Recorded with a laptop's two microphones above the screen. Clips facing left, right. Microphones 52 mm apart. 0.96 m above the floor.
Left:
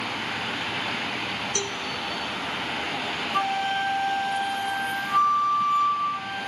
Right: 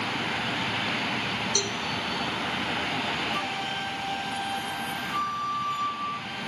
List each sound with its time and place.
1.6 s a cowbell: 40° left (ahead or behind), 1.6 m
3.3 s a flute: 55° left (ahead or behind), 1.0 m